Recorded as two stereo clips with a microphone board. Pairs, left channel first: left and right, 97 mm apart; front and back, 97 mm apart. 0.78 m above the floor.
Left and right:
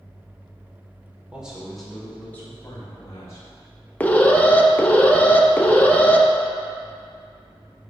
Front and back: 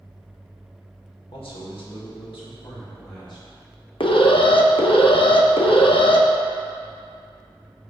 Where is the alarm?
15° left, 0.7 m.